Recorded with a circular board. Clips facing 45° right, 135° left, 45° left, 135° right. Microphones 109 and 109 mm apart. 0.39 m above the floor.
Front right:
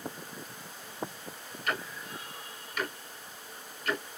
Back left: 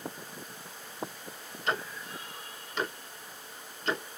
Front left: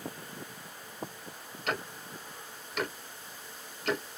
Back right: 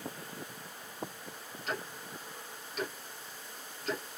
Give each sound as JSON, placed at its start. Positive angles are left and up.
{"t": 1.7, "sound": "ticking", "azimuth_deg": 70, "distance_m": 0.9}